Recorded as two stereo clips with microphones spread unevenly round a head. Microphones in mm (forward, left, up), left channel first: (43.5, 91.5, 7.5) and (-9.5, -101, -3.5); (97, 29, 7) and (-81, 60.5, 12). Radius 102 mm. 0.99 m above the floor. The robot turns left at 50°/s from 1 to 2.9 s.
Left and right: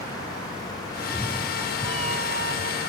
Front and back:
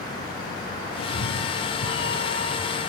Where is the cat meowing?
5° left; by 2.8 s 85° right.